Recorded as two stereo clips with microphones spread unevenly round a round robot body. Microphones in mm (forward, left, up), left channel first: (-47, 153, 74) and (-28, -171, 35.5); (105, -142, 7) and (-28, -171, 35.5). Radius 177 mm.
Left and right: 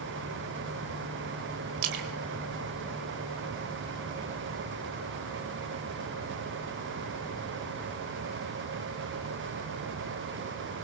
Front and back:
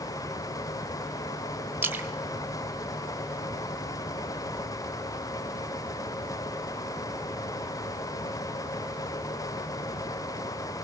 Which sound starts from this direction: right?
A splash, at 1.8 s.